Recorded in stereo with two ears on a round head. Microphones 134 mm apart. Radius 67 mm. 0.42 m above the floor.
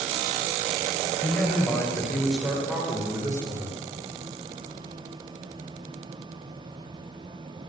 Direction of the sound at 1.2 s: 10° left (ahead or behind).